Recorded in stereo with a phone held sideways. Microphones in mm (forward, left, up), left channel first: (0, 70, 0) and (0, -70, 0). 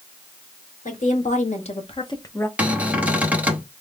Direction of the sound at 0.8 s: 65° left (ahead or behind).